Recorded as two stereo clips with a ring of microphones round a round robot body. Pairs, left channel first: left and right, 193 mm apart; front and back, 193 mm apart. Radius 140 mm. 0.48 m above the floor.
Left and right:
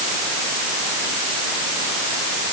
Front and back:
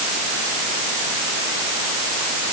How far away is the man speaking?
No man speaking in this recording.